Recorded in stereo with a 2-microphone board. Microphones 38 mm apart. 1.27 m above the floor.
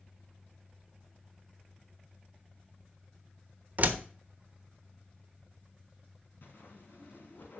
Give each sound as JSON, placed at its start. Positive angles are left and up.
{"t": 3.8, "sound": "a door slam", "side_deg": -40, "distance_m": 1.0}
{"t": 6.4, "sound": "a whoosh", "side_deg": 60, "distance_m": 2.5}